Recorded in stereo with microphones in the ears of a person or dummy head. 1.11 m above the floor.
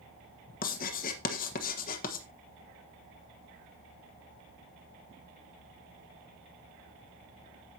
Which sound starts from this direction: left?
Writing, at 0.6 s.